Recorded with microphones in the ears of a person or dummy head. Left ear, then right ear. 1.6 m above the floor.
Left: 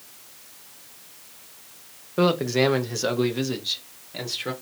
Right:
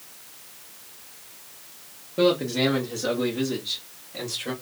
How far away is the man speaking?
About 0.7 m.